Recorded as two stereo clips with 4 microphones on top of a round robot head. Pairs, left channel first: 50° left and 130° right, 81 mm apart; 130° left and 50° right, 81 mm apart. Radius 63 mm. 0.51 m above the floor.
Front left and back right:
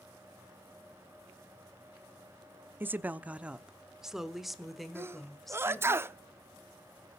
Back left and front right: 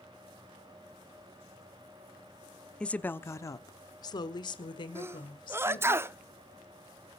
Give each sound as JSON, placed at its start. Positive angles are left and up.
{"t": 2.8, "sound": "a woman speaking", "azimuth_deg": -160, "distance_m": 0.8}
{"t": 5.0, "sound": "a sneeze", "azimuth_deg": -90, "distance_m": 0.9}